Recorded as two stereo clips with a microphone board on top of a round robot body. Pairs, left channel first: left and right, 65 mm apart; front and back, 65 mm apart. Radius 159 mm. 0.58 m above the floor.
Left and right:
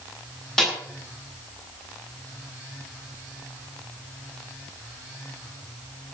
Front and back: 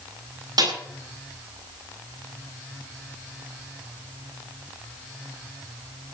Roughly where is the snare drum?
Behind.